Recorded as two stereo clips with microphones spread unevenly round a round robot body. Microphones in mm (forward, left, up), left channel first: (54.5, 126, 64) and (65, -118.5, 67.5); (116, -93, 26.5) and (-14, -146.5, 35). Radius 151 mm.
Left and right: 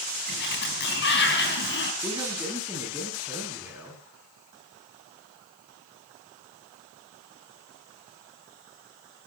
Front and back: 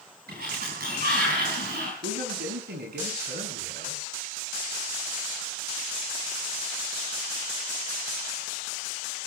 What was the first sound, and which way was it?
A sliding door, 145° left.